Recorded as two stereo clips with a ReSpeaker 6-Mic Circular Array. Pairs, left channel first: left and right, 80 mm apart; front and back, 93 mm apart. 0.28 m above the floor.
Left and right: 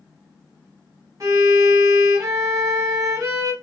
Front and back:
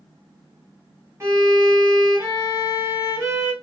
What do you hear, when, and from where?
1.2 s a violin: 125° right, 1.2 m